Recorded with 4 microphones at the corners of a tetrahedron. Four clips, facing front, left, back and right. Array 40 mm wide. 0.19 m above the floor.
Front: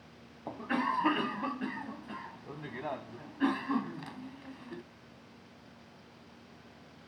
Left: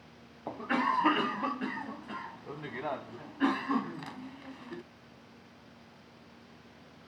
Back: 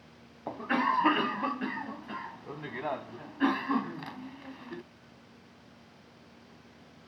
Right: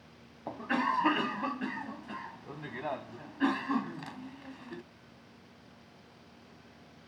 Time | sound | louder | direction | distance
0.5 | a cough | left 1 dB, back 4 dB | 170° left | ?